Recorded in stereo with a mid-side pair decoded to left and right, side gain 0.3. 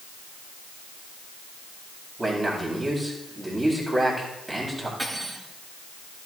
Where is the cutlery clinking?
25° right, 7.5 m.